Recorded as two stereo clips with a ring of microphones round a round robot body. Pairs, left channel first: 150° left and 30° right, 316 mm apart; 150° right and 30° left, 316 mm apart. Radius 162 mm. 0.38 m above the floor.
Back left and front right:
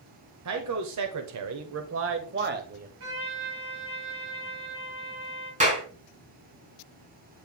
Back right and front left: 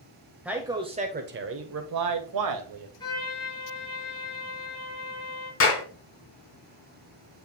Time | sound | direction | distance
0.5 | a man speaking | 55° right | 1.5 m
3.0 | a trumpet | 70° right | 5 m
5.6 | a clap | 100° right | 3.5 m